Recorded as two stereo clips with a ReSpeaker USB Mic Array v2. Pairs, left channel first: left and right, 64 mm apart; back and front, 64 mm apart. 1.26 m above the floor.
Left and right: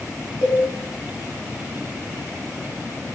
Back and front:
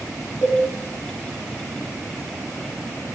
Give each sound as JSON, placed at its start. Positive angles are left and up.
{"t": 0.4, "sound": "a cowbell", "azimuth_deg": 105, "distance_m": 1.3}